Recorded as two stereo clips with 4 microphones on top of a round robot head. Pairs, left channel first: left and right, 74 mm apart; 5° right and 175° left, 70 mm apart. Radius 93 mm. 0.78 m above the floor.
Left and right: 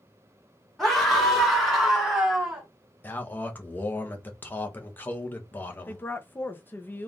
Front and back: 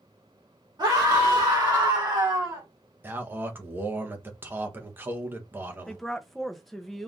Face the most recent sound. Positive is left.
turn(degrees=80)